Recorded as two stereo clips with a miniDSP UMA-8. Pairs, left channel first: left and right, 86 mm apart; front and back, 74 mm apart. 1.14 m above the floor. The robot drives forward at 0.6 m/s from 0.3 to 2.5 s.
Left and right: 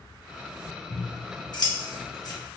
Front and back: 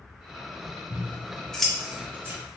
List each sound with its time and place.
0.9 s scissors: 50° left, 0.9 m; by 2.4 s 125° left, 0.8 m